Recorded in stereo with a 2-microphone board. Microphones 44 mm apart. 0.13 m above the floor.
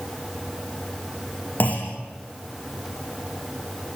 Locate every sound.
1.6 s a clunk: 45° left (ahead or behind), 5.5 m